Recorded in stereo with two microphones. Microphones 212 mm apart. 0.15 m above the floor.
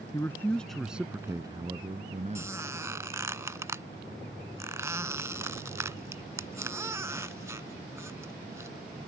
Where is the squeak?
15° right (ahead or behind).